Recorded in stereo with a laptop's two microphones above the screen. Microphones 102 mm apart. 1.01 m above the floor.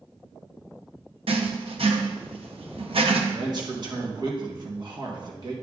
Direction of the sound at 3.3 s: 45° right (ahead or behind).